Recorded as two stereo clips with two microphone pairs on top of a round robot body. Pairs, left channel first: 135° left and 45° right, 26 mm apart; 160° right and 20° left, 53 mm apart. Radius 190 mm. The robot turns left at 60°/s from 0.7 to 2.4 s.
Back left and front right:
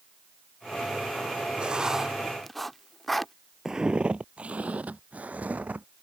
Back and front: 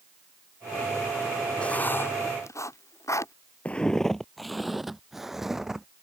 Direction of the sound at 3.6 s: 105° right.